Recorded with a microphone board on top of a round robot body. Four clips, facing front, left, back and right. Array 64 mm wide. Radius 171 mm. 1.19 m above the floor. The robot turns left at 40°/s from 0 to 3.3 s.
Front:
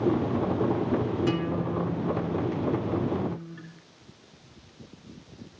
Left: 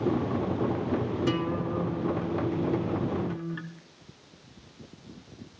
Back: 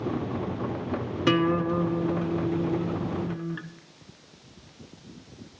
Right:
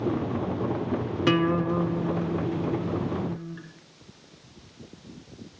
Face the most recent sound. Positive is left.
turn(degrees=155)